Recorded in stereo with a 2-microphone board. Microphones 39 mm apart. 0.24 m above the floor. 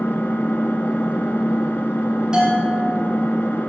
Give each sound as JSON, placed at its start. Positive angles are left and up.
{"t": 0.0, "sound": "an engine running", "side_deg": 55, "distance_m": 1.2}
{"t": 2.3, "sound": "a bell", "side_deg": -20, "distance_m": 3.5}